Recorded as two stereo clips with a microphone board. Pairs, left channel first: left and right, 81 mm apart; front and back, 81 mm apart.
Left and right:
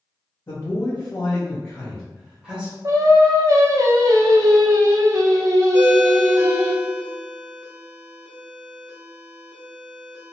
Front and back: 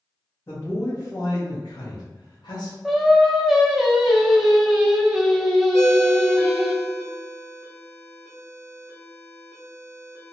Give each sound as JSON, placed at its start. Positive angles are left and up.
{"t": 0.5, "sound": "a man speaking", "azimuth_deg": 55, "distance_m": 1.1}
{"t": 2.8, "sound": "singing", "azimuth_deg": -95, "distance_m": 0.5}
{"t": 5.7, "sound": "a ringtone", "azimuth_deg": -155, "distance_m": 0.8}